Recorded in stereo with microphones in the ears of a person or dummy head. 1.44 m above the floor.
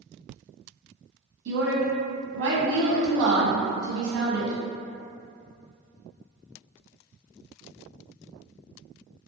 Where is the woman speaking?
65° right (ahead or behind), 0.9 m.